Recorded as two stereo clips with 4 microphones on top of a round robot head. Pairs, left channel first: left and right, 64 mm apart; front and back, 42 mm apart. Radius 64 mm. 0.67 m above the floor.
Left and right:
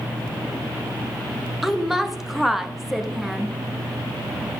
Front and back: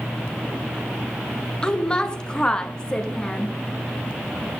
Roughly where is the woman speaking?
Ahead.